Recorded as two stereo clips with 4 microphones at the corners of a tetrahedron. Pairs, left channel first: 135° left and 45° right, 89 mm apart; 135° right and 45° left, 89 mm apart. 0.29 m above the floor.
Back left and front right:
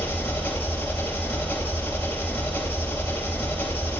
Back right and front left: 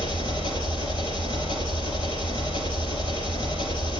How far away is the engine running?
About 2.0 m.